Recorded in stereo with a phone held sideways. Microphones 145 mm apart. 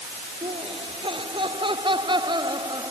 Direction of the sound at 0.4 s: 40° right (ahead or behind).